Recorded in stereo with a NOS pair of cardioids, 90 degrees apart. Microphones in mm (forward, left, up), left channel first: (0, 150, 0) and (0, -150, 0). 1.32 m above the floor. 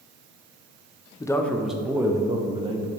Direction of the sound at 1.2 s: 15° left.